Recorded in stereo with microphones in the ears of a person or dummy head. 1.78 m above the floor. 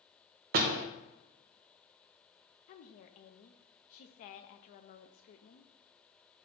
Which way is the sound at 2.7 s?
40° left (ahead or behind).